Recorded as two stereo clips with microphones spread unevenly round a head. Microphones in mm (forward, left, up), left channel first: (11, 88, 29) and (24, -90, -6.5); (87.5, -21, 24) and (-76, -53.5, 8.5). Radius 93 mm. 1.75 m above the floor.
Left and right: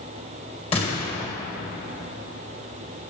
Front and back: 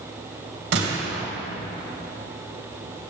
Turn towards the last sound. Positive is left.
turn(degrees=155)